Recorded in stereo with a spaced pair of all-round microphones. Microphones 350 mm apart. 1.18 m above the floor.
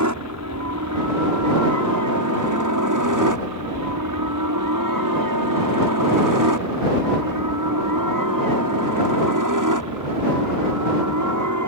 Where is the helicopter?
55° right (ahead or behind); by 11.7 s 60° right (ahead or behind).